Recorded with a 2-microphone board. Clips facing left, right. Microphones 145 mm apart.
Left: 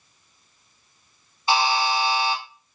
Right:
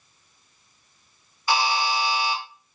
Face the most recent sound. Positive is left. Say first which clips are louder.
# left 2 dB
turn(degrees=25)  # may be behind; listen again after turning